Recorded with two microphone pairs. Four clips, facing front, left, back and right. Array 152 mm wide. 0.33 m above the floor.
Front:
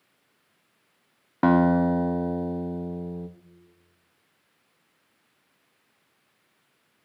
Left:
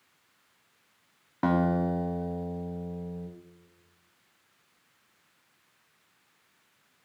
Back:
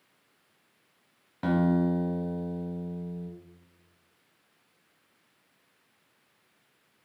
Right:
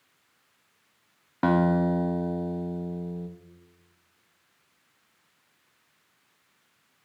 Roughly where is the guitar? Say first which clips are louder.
Right 3 dB, front 6 dB; ahead.